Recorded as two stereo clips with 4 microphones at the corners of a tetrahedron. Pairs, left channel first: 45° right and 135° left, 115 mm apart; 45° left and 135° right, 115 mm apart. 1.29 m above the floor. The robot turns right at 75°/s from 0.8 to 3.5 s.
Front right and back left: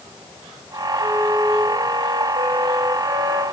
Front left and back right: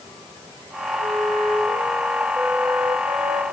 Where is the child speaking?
No child speaking in this recording.